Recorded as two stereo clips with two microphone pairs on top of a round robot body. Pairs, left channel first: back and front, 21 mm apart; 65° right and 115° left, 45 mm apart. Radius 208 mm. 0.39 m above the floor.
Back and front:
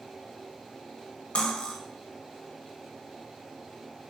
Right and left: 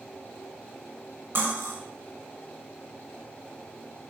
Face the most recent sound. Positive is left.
turn(degrees=155)